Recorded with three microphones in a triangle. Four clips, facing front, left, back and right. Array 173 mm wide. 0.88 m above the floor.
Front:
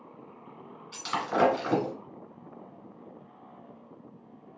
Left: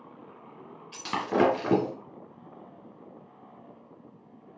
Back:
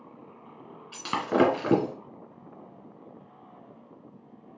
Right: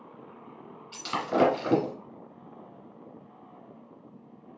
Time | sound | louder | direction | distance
0.9 | breaking glass | even, back 4 dB | 150° left | 1.6 m